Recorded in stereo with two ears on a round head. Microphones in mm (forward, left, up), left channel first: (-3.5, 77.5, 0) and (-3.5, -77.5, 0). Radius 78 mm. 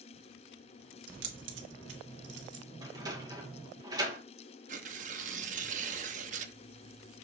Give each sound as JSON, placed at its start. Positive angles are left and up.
{"t": 1.1, "sound": "keys jangling", "side_deg": -75, "distance_m": 1.2}
{"t": 2.8, "sound": "a sliding door", "side_deg": -20, "distance_m": 1.4}
{"t": 4.7, "sound": "tearing paper", "side_deg": -45, "distance_m": 0.7}